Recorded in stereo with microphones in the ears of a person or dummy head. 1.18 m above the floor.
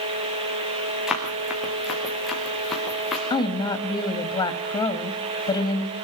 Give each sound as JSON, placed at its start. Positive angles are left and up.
{"t": 1.1, "sound": "running footsteps", "side_deg": 0, "distance_m": 4.5}
{"t": 3.3, "sound": "a woman speaking", "side_deg": 25, "distance_m": 1.8}